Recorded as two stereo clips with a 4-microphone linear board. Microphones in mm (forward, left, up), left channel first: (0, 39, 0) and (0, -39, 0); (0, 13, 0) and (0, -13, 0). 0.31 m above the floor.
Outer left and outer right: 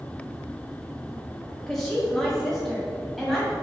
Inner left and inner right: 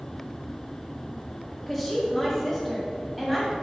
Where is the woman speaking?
5° left (ahead or behind), 1.5 m.